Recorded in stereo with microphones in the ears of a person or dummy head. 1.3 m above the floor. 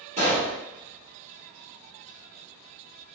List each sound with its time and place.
0.2 s a pop: 30° right (ahead or behind), 1.6 m